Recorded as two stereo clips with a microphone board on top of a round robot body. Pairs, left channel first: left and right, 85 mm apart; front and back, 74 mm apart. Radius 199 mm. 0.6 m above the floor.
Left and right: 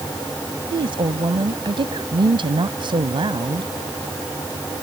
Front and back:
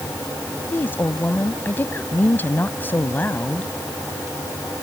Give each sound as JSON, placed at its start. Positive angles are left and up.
{"t": 0.7, "sound": "a woman speaking", "azimuth_deg": -65}